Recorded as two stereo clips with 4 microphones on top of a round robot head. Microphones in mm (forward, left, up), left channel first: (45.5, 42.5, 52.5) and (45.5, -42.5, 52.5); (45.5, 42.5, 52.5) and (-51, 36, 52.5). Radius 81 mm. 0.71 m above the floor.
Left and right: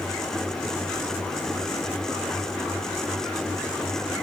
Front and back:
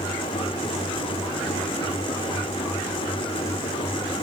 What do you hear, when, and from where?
Only background noise.